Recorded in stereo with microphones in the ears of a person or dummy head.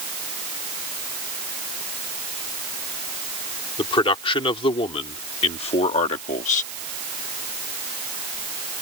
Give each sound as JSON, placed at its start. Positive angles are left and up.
{"t": 3.8, "sound": "a man speaking", "side_deg": 25}